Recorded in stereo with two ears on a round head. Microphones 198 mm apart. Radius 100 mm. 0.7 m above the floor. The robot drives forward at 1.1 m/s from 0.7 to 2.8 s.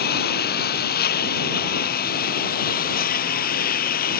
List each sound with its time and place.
0.0 s a lawn mower: 45° left (ahead or behind)